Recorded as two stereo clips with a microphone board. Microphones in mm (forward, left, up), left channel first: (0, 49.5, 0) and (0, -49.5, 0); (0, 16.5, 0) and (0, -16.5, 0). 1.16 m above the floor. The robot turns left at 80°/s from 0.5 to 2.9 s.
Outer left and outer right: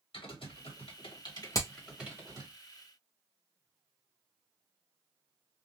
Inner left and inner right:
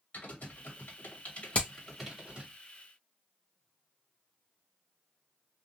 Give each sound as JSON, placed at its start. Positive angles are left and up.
{"t": 0.1, "sound": "typing on a keyboard", "side_deg": 65, "distance_m": 1.5}
{"t": 1.6, "sound": "hammering", "side_deg": 35, "distance_m": 0.8}